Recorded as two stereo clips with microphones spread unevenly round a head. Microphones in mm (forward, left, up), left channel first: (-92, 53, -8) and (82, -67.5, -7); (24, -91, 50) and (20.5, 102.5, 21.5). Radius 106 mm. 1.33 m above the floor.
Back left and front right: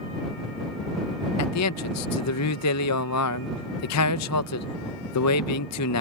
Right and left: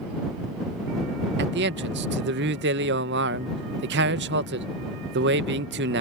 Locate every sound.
1.4 s a man speaking: 130° left